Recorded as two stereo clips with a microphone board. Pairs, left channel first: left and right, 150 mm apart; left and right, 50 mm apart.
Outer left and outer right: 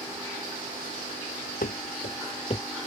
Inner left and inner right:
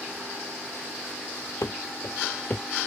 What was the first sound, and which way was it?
Running footsteps, 75° left (ahead or behind).